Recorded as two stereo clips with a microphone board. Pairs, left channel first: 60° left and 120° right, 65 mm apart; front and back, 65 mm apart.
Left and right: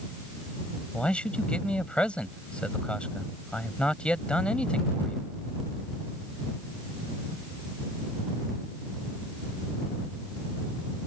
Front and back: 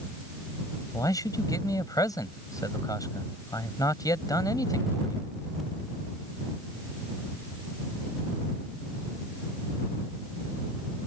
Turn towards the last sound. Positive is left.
turn(degrees=-15)